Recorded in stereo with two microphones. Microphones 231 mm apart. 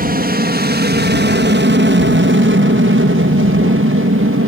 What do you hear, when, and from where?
0.0 s an aircraft: 40° right (ahead or behind); by 4.5 s 65° right (ahead or behind)